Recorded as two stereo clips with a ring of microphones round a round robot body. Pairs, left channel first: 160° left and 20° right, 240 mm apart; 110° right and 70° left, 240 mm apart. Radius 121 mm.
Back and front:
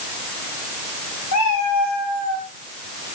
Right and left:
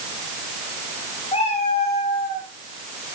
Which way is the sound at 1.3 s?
Straight behind.